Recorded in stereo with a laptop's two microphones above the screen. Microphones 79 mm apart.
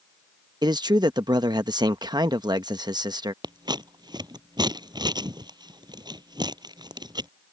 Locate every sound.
0.6 s a man speaking: 60° right (ahead or behind)
3.4 s scissors: 60° right (ahead or behind)